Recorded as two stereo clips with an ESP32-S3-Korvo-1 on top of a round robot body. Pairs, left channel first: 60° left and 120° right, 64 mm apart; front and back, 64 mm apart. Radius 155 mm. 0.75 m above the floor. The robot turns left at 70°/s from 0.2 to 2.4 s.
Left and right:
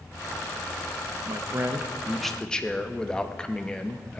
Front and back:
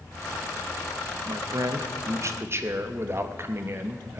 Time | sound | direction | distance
1.2 | a man speaking | 145° right | 1.1 m